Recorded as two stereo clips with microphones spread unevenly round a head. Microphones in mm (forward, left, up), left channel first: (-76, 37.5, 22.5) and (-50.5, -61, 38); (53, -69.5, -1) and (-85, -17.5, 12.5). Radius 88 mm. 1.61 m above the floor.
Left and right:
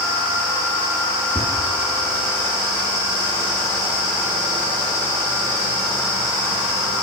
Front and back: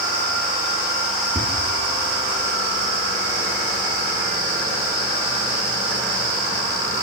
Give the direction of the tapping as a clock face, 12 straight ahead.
5 o'clock.